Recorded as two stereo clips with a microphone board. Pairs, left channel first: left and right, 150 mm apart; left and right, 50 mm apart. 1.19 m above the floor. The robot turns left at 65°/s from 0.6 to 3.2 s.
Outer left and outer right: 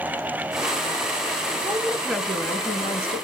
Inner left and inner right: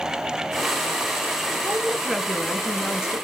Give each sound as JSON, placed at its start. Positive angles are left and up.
{"t": 1.6, "sound": "a woman speaking", "azimuth_deg": -150, "distance_m": 1.4}